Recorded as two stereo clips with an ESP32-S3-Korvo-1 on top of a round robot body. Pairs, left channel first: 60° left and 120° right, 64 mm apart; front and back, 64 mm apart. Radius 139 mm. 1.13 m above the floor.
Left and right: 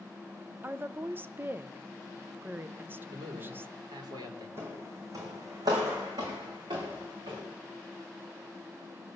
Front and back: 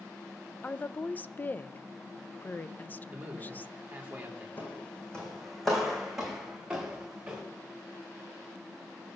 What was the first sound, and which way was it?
A woman speaking, 60° right.